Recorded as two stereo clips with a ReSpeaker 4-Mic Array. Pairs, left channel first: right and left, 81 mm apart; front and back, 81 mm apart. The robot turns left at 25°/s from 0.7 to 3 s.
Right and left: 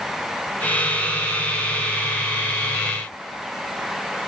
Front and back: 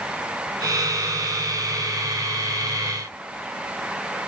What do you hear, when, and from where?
Only background noise.